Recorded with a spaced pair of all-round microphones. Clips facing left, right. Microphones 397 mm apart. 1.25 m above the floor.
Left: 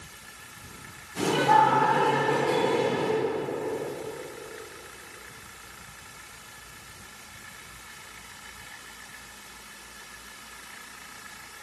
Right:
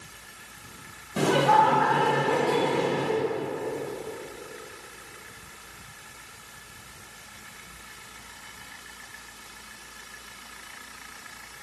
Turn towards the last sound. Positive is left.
turn(degrees=-80)